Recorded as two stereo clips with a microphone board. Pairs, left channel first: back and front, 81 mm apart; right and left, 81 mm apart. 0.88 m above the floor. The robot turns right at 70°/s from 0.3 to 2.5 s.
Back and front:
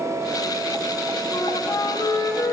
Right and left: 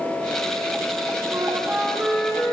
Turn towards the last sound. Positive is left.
turn(degrees=-145)